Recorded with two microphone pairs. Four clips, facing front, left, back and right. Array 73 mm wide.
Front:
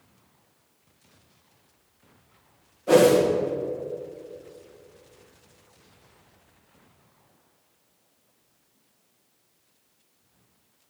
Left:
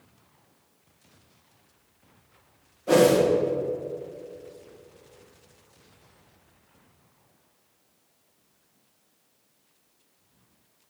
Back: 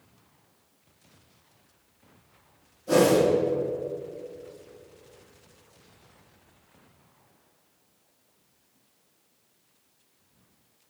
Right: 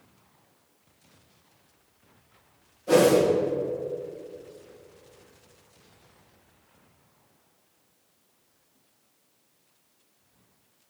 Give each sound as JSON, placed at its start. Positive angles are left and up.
{"t": 2.9, "sound": "a whoosh", "azimuth_deg": 35, "distance_m": 1.5}